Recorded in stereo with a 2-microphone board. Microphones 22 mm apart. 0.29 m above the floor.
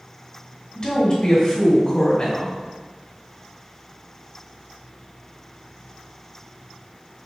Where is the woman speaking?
40° left (ahead or behind), 1.9 m.